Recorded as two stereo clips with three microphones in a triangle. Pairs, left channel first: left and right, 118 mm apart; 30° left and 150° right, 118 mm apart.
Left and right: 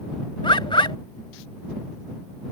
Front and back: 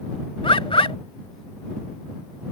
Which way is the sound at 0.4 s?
55° left.